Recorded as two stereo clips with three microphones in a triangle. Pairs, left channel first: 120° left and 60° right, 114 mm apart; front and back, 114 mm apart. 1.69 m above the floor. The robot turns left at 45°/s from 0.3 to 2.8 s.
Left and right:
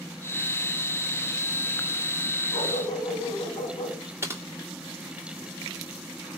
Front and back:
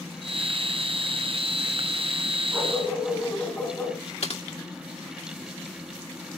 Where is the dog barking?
90° left, 4 m; by 4.0 s 75° left, 4 m.